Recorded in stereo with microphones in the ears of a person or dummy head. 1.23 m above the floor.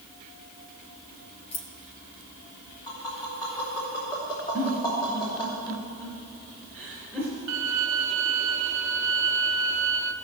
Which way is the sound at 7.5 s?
70° right (ahead or behind).